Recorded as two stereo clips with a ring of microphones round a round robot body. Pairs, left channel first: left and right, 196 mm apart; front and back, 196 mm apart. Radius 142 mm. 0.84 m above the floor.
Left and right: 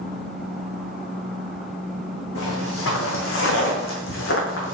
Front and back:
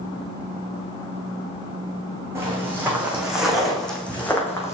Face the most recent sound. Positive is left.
turn(degrees=75)